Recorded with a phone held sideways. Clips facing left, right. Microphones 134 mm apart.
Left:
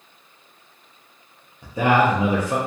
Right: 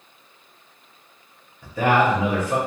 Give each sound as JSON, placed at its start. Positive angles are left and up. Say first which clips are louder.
{"t": 1.6, "sound": "a man speaking", "louder": "left 1 dB", "side_deg": 20, "distance_m": 0.6}